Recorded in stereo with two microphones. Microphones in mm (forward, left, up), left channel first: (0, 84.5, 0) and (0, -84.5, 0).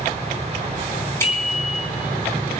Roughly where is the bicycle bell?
Centre.